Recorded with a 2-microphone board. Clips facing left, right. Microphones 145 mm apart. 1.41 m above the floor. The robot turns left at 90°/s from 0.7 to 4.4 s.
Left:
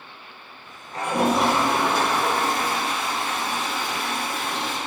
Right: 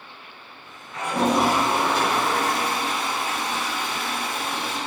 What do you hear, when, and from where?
0.9 s a toilet flushing: 40° left, 6 m; by 4.8 s 90° left, 6 m